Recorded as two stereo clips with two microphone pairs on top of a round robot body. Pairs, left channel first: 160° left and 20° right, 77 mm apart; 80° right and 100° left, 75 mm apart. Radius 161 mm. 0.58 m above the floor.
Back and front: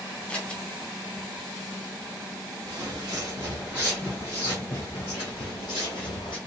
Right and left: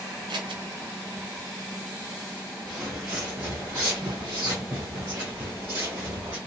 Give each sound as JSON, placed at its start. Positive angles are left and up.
{"t": 0.3, "sound": "scissors", "azimuth_deg": 85, "distance_m": 0.5}
{"t": 2.7, "sound": "footsteps", "azimuth_deg": 15, "distance_m": 0.9}